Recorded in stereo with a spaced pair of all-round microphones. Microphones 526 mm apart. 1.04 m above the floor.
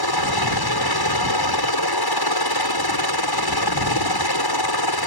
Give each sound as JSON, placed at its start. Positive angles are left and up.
{"t": 0.0, "sound": "a helicopter", "side_deg": 45}